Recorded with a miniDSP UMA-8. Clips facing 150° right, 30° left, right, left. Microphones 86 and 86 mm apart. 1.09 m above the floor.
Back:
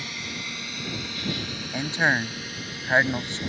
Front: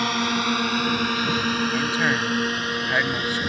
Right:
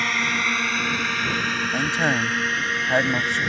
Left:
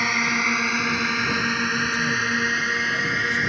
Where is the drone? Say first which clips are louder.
Front 14 dB, left 1 dB; 5° left.